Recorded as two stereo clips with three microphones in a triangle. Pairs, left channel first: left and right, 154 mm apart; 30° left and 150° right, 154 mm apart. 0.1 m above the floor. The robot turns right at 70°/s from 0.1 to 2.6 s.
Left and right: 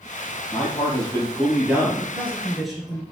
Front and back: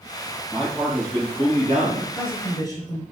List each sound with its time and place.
0.5 s a man speaking: 115° left, 2.5 m; by 2.1 s 135° right, 2.5 m
2.0 s a man speaking: 45° right, 1.4 m; by 3.0 s straight ahead, 1.4 m